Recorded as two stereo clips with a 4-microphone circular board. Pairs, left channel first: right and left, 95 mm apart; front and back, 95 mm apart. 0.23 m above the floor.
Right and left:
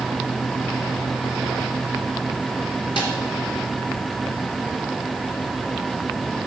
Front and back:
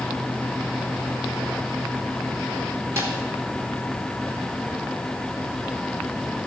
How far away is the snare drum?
About 3 m.